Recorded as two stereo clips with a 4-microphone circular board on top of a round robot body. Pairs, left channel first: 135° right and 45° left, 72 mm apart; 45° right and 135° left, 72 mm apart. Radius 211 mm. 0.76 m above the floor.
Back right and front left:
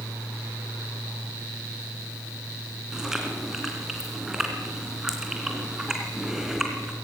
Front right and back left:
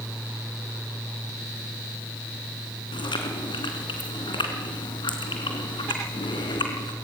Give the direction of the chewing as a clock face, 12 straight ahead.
1 o'clock.